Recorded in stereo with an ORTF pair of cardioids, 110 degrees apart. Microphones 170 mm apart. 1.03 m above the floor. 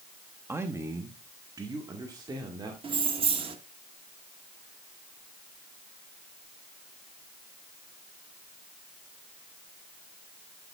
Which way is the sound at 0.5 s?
15° right.